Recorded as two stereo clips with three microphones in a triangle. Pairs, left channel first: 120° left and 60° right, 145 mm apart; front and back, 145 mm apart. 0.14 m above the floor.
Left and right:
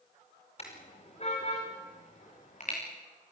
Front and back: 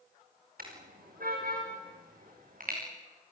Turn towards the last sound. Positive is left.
turn(degrees=150)